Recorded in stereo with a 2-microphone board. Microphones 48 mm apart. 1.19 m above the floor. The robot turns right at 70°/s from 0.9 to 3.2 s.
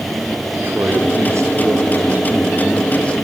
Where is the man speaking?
130° right, 4.5 m; by 3.1 s 30° left, 4.5 m.